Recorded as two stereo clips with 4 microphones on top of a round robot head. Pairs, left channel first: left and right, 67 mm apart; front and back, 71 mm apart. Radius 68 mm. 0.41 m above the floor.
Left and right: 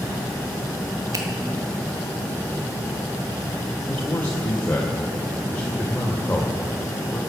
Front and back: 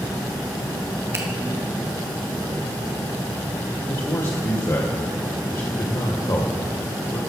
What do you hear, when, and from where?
1.1 s a finger snap: 125° right, 1.5 m
3.9 s a man speaking: 30° left, 1.6 m